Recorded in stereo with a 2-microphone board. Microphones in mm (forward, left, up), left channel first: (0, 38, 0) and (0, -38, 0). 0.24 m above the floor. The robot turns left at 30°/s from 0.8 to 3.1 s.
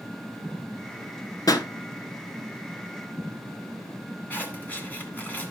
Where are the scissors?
20° left (ahead or behind), 2 m.